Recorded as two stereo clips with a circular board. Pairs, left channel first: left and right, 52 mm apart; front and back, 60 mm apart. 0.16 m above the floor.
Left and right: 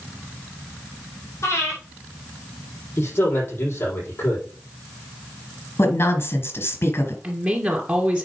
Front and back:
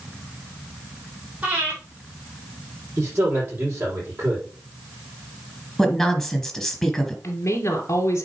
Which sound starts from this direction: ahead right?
A woman speaking, at 7.2 s.